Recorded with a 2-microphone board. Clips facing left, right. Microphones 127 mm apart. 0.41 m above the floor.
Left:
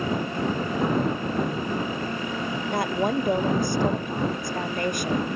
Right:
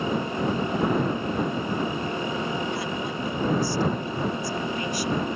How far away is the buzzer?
I don't hear a buzzer.